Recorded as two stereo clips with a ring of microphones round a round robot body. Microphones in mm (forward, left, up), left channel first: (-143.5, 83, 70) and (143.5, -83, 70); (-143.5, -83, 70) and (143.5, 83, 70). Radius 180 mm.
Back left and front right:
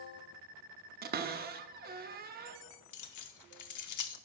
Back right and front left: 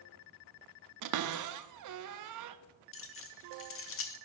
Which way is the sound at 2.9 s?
165° left.